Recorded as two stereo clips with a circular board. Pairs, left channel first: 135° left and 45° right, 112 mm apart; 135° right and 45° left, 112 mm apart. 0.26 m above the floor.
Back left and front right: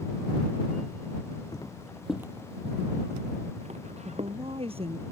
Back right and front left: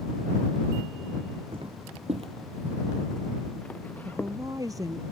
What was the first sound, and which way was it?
Footsteps, 80° left.